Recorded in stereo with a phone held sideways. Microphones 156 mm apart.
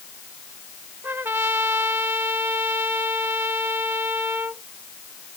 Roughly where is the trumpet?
Centre.